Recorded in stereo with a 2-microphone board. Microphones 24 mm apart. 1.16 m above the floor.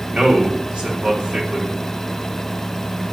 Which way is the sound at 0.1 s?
50° right (ahead or behind).